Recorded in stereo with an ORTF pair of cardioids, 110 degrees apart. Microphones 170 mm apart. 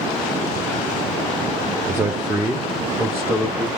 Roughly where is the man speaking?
Ahead.